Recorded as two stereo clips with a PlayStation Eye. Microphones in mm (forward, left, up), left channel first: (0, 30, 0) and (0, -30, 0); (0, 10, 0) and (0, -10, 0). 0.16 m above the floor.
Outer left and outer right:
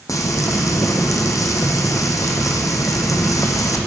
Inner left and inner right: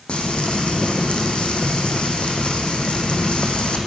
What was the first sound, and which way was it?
Frying, 65° left (ahead or behind).